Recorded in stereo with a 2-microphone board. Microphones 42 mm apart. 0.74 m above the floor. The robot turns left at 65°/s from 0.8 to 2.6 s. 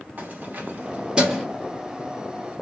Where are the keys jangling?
45° right (ahead or behind), 1.0 m; by 1.4 s 5° right (ahead or behind), 1.0 m.